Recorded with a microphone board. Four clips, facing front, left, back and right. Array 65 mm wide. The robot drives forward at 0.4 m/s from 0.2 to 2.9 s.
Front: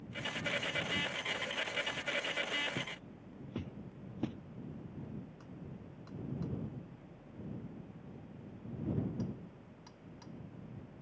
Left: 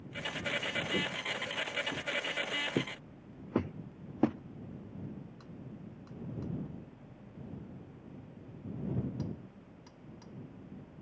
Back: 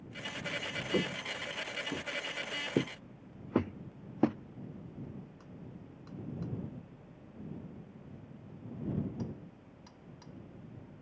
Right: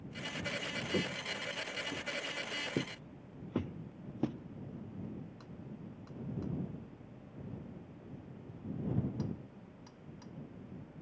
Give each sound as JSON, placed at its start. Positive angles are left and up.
{"t": 0.9, "sound": "footsteps", "azimuth_deg": -175}